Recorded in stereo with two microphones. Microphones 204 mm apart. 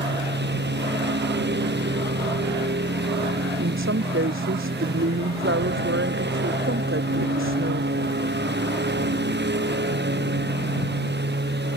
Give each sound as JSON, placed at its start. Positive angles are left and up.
{"t": 0.0, "sound": "a lawn mower", "side_deg": -55}
{"t": 3.6, "sound": "a woman speaking", "side_deg": -80}